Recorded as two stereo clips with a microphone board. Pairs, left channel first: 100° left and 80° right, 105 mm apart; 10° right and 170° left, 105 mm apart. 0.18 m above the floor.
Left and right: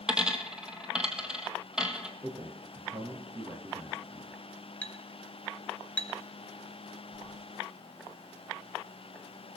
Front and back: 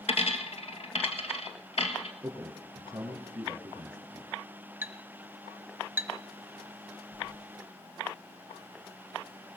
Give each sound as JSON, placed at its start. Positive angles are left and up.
{"t": 0.1, "sound": "a dropped coin", "azimuth_deg": 5, "distance_m": 1.3}
{"t": 2.2, "sound": "a man speaking", "azimuth_deg": -130, "distance_m": 3.5}
{"t": 4.8, "sound": "a clink", "azimuth_deg": 155, "distance_m": 0.8}
{"t": 7.1, "sound": "keys jangling", "azimuth_deg": -145, "distance_m": 3.5}